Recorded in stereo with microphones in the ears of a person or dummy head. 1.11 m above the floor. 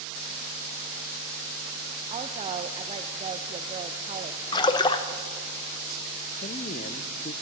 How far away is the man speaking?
About 0.6 m.